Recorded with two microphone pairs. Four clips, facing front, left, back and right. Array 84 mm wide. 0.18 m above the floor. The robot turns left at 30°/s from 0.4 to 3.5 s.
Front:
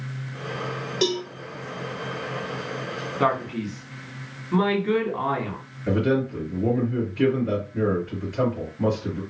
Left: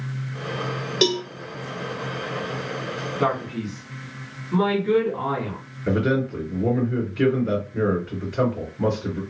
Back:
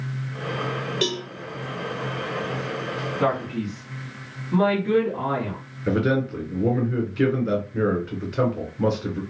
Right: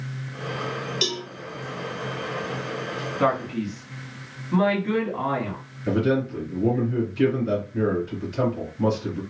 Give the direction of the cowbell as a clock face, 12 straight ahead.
9 o'clock.